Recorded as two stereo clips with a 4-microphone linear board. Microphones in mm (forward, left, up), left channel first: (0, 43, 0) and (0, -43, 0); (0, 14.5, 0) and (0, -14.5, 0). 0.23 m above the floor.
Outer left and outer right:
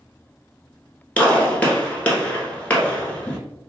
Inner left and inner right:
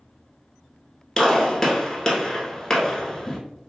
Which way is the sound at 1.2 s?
15° left (ahead or behind).